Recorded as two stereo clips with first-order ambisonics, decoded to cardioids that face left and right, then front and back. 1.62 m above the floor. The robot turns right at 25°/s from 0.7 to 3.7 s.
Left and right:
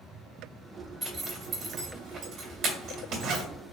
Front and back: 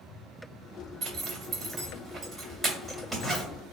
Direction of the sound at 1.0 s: 145° right.